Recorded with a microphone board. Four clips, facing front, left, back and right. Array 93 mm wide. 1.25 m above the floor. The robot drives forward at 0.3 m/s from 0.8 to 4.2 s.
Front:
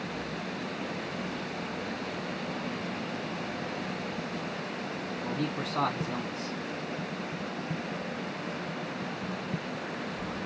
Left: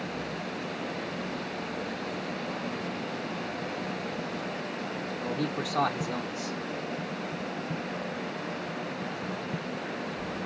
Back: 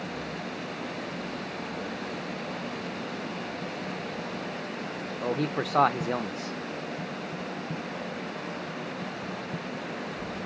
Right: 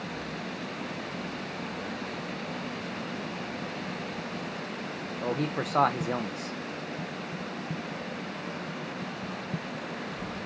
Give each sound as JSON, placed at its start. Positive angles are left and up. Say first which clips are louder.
{"t": 5.2, "sound": "a man speaking", "louder": "right 3 dB, back 6 dB", "azimuth_deg": -150, "distance_m": 0.6}